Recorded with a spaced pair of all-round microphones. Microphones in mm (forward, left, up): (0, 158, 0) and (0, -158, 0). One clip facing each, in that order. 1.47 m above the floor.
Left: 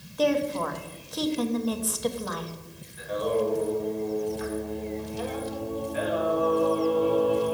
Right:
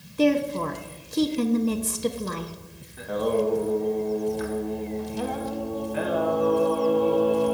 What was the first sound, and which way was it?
A woman speaking, 30° right (ahead or behind).